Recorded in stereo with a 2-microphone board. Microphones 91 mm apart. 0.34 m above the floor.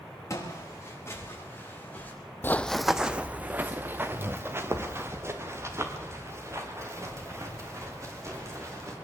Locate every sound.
0.3 s footsteps: 35° left (ahead or behind), 7.5 m; by 2.1 s 20° left (ahead or behind), 6.5 m
2.4 s running footsteps: 30° left (ahead or behind), 0.5 m; by 8.9 s 35° right (ahead or behind), 7 m